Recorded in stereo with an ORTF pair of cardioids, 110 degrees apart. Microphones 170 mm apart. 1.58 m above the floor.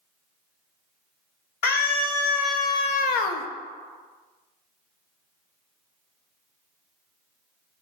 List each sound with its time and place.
1.6 s a scream: 65° left, 2 m